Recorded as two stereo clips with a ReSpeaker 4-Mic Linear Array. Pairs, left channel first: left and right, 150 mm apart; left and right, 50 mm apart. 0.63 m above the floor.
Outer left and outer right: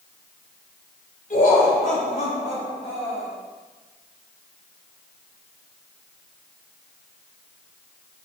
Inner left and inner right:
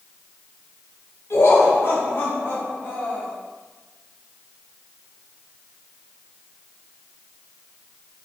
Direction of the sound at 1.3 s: 65° left (ahead or behind).